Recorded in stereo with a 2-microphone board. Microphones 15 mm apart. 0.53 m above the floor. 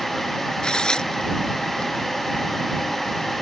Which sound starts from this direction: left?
Tearing paper, at 0.6 s.